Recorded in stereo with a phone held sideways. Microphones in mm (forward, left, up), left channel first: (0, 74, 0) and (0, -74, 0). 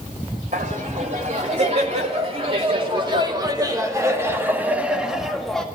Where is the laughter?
55° right (ahead or behind), 3 m; by 5.7 s 5° left (ahead or behind), 1.9 m.